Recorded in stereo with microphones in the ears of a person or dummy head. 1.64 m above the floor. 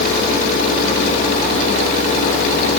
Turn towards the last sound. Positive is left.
No sound to turn to.